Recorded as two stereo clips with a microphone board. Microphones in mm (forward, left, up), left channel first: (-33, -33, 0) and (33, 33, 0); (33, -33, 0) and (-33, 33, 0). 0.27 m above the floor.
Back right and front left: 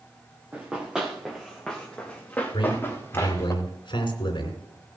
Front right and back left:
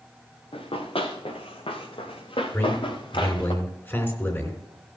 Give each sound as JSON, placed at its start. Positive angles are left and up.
{"t": 0.5, "sound": "running footsteps", "azimuth_deg": -30, "distance_m": 2.5}
{"t": 2.5, "sound": "a man speaking", "azimuth_deg": -110, "distance_m": 3.0}